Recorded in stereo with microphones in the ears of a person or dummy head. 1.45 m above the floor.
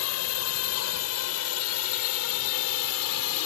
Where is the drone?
85° left; by 3.5 s 80° left.